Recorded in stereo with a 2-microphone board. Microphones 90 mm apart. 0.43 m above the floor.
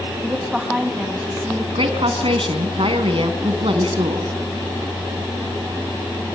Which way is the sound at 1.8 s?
75° right (ahead or behind).